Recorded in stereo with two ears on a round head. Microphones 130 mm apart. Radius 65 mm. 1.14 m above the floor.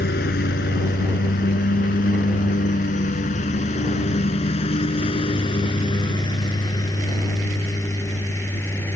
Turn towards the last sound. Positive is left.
turn(degrees=15)  # may be behind; listen again after turning